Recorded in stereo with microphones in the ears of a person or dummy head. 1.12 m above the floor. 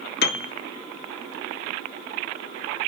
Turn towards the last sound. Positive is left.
turn(degrees=55)  # may be behind; listen again after turning